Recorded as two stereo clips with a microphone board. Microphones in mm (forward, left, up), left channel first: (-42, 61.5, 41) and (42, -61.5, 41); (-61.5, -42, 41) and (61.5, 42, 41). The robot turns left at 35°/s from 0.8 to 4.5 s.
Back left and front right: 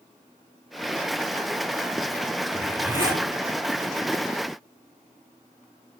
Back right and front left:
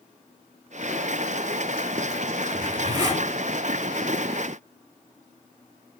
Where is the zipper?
20° left, 1.0 m; by 3.2 s 5° right, 1.0 m.